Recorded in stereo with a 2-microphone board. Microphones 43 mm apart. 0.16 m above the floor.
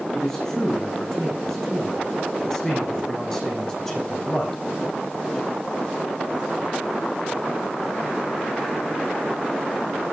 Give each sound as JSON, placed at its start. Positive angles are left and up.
{"t": 0.1, "sound": "a man speaking", "side_deg": 15, "distance_m": 10.0}